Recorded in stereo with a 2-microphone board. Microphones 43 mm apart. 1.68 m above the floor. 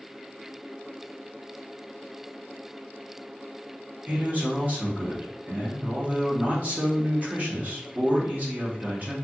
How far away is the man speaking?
About 1.2 m.